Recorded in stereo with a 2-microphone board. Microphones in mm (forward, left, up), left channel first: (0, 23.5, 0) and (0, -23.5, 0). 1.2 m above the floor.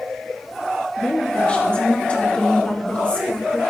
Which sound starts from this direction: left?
A woman speaking, at 1.0 s.